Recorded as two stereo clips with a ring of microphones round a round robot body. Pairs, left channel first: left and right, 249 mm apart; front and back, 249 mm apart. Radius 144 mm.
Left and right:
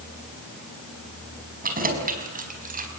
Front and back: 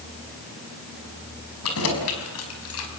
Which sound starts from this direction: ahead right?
Keys jangling, at 1.6 s.